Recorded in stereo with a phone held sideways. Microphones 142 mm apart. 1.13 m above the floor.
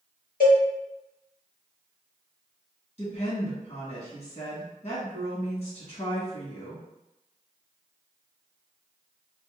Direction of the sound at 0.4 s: 85° left.